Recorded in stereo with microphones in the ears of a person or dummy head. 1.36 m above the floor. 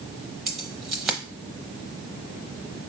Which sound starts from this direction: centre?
Keys jangling, at 0.5 s.